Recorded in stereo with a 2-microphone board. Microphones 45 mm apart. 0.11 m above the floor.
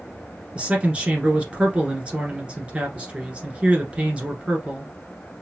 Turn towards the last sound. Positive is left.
turn(degrees=-25)  # may be behind; listen again after turning